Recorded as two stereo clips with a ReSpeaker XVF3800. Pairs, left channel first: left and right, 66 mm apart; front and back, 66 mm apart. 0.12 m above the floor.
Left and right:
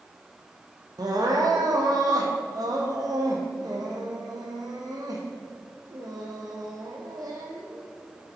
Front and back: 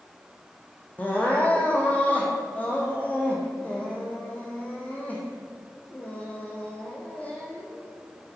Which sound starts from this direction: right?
Crying, at 1.0 s.